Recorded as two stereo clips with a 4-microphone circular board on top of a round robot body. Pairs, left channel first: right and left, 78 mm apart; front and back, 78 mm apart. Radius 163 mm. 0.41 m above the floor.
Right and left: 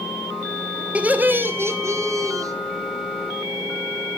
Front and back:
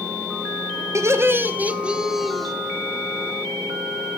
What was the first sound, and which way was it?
Laughter, 155° left.